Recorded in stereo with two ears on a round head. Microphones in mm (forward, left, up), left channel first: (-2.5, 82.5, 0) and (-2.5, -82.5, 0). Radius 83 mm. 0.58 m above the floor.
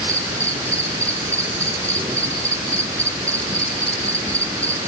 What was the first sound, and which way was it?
An insect, 15° right (ahead or behind).